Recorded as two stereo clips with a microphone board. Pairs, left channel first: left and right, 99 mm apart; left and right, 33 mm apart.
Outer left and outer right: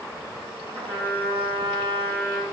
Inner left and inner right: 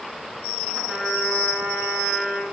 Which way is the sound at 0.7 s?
65° right (ahead or behind).